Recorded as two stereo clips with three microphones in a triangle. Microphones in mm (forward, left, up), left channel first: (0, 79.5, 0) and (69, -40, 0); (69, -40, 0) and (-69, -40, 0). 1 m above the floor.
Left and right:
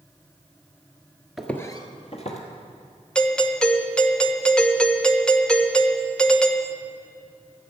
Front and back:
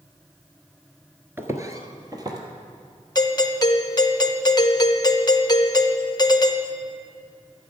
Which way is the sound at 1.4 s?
145° right.